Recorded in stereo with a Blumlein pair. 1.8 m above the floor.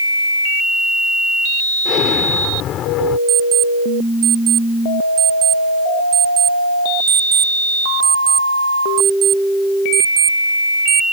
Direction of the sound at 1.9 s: 30° left.